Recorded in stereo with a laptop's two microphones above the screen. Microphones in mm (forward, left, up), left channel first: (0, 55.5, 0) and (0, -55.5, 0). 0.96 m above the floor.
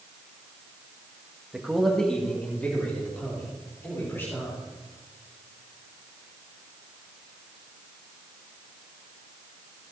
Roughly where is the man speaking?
Centre.